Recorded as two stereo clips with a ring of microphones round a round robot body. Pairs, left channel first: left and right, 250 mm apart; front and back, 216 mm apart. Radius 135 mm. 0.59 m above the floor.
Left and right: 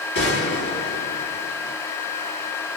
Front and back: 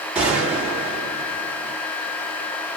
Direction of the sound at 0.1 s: 100° left.